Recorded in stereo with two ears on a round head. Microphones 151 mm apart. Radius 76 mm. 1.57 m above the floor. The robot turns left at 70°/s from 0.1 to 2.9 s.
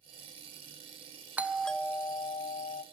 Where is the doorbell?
165° right, 0.7 m; by 2.8 s 90° left, 0.7 m.